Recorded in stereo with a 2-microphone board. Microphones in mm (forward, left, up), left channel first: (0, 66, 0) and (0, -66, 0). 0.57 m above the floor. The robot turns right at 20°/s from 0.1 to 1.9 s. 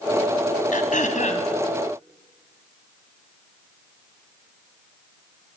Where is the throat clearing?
75° left (ahead or behind), 2.5 m; by 1.5 s 65° left (ahead or behind), 2.5 m.